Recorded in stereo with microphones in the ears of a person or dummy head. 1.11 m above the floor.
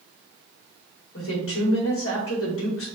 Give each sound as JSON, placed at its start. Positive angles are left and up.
{"t": 1.1, "sound": "a woman speaking", "side_deg": 70, "distance_m": 1.7}